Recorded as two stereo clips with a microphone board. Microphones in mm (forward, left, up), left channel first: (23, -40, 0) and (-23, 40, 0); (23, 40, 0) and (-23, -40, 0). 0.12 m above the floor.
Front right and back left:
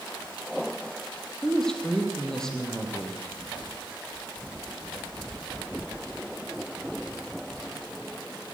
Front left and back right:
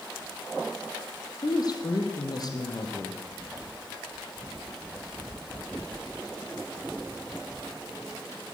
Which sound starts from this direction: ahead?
A woman speaking, at 1.4 s.